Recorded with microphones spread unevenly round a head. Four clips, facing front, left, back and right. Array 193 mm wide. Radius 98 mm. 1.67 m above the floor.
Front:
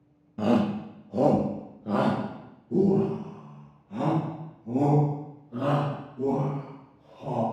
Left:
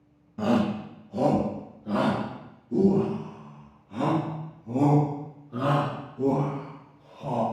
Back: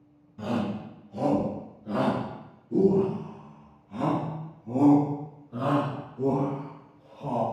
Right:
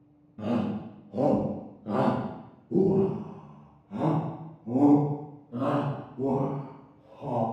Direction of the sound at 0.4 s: 20° left.